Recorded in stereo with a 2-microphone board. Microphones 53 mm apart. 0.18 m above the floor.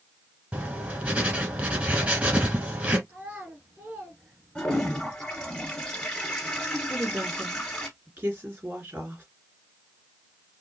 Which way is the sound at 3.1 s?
30° right (ahead or behind).